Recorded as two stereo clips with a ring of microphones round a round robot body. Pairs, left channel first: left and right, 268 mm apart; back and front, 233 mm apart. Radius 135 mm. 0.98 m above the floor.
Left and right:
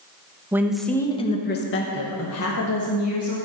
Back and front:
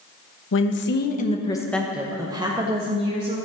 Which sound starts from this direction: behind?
A woman speaking, at 0.5 s.